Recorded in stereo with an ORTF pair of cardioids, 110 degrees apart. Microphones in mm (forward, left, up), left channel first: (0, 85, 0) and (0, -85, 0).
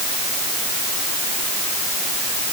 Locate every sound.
Only background noise.